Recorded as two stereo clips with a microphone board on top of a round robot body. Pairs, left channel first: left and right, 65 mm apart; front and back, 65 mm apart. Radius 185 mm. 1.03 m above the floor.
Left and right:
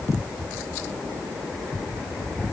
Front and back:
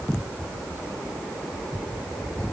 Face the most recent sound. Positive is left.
No sound to turn to.